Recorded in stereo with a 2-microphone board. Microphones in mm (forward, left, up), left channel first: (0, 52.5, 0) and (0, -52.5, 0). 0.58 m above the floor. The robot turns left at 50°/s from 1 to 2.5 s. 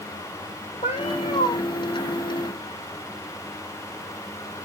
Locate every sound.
0.8 s a cat meowing: 80° left, 2.5 m; by 1.6 s 60° left (ahead or behind), 2.5 m